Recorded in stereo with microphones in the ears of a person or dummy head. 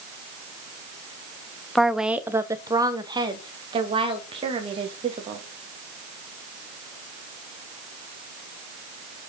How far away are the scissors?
No scissors in this recording.